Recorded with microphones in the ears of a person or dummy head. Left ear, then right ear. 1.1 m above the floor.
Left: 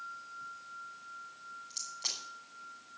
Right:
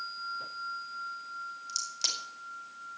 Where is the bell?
No bell in this recording.